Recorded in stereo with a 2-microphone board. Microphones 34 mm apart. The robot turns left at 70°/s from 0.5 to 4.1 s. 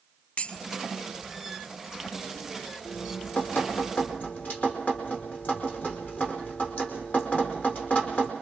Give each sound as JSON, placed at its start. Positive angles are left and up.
{"t": 0.4, "sound": "dishes clattering", "side_deg": 40, "distance_m": 1.3}
{"t": 2.9, "sound": "dripping", "azimuth_deg": 135, "distance_m": 4.0}